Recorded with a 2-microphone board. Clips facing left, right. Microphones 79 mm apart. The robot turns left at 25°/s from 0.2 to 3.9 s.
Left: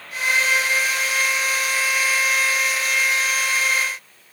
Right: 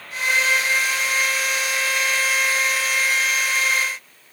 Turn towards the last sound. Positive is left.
No sound to turn to.